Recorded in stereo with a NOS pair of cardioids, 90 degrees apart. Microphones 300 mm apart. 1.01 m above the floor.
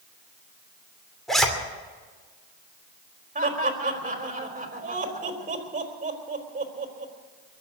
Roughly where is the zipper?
Ahead.